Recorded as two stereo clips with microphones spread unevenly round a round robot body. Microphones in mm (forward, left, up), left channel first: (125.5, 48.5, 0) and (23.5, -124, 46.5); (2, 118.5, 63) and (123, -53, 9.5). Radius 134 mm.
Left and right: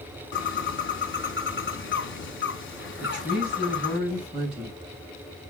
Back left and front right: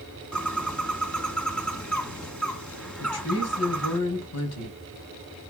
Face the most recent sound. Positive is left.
turn(degrees=150)